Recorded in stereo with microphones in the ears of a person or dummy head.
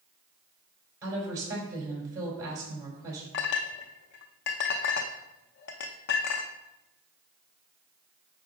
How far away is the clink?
About 0.7 m.